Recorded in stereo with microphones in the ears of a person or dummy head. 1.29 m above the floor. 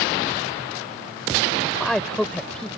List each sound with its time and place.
1.6 s a man speaking: centre (ahead or behind)